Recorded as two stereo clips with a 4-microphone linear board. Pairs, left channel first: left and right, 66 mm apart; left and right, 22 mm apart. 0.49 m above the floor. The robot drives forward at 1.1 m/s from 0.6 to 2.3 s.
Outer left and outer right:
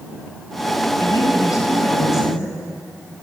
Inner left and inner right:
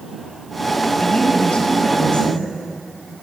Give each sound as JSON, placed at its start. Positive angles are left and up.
{"t": 1.0, "sound": "a woman speaking", "side_deg": 60, "distance_m": 4.0}